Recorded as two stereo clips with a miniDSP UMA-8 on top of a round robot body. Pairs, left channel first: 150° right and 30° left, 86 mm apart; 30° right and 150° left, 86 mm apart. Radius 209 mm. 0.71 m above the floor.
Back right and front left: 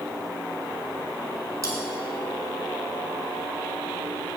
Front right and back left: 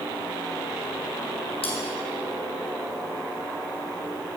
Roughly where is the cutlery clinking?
Ahead.